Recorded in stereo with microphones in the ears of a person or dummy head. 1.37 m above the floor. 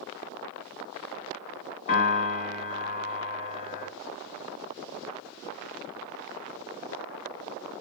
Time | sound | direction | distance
1.9 | a piano | 40° left (ahead or behind) | 1.1 m